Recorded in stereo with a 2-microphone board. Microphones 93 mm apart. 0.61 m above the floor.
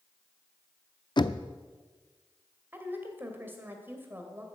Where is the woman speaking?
20° right (ahead or behind), 2.5 m.